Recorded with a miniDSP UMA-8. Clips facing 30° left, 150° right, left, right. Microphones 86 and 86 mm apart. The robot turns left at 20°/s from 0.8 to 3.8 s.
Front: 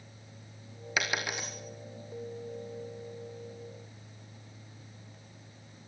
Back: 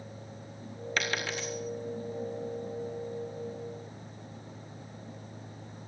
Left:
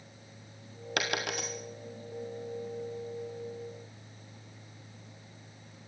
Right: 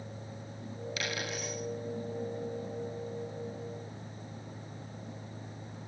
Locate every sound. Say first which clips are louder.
1.0 s a dropped coin: even, left 5 dB; 110° left, 4.5 m; by 1.5 s 100° left, 4.5 m